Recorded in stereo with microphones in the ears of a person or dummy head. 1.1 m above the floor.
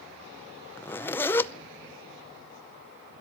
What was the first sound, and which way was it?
A zipper, 15° left (ahead or behind).